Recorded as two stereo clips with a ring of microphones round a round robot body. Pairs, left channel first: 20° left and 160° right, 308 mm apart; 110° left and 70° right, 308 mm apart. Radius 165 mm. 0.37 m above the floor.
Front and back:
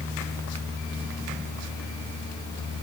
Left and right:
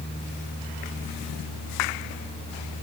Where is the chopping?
I don't hear chopping.